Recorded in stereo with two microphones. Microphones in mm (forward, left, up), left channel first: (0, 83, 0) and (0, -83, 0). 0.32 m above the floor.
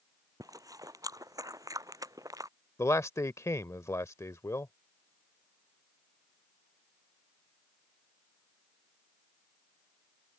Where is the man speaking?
15° left (ahead or behind).